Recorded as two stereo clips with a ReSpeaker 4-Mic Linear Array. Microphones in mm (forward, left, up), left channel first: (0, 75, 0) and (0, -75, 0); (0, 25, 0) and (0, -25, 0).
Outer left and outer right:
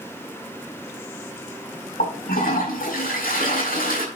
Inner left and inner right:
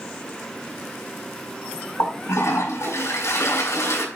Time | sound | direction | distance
2.0 | a toilet flushing | 75° left (ahead or behind) | 5.5 m